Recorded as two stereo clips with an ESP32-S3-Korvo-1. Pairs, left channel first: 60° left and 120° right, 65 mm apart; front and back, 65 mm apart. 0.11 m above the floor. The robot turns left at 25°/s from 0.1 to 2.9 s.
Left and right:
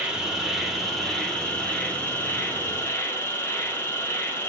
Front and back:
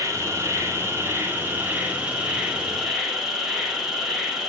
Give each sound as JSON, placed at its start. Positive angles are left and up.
{"t": 0.0, "sound": "an insect", "azimuth_deg": 170, "distance_m": 1.0}